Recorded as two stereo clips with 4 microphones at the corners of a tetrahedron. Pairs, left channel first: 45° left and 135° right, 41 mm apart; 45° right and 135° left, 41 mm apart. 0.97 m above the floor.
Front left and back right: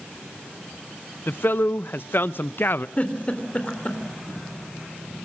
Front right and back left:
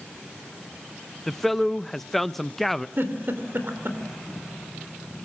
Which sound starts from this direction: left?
A giggle, at 3.0 s.